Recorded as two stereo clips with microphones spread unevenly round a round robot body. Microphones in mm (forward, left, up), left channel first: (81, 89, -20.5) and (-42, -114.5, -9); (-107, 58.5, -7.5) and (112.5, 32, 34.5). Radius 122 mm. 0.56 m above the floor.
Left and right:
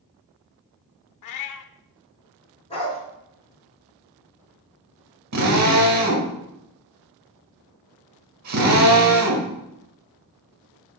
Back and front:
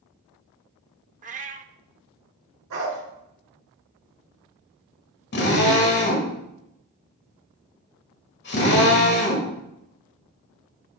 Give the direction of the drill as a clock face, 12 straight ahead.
5 o'clock.